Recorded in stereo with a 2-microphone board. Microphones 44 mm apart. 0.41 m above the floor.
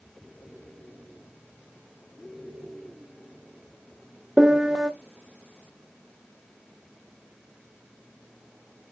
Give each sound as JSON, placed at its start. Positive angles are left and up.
{"t": 4.4, "sound": "a piano", "side_deg": -15, "distance_m": 0.5}